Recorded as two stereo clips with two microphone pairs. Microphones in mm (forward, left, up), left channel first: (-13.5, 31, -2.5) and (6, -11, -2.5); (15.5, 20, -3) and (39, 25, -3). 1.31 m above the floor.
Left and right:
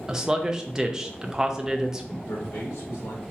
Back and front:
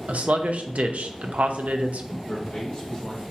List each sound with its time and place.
0.1 s a man speaking: 10° left, 0.5 m
2.3 s a man speaking: 130° left, 1.9 m